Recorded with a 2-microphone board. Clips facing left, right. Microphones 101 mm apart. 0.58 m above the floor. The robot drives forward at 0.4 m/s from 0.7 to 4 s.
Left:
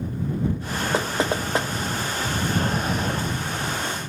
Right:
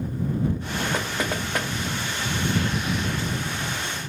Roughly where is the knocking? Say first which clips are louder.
Left 4 dB; left.